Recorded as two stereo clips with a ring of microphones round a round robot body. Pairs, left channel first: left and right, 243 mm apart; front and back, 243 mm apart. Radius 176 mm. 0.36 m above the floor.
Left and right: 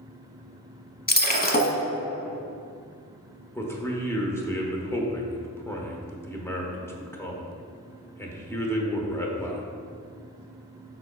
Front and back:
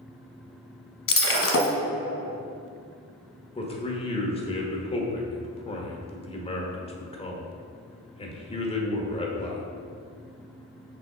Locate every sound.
1.1 s breaking glass: 35° left, 1.1 m
3.5 s a man speaking: 25° left, 1.1 m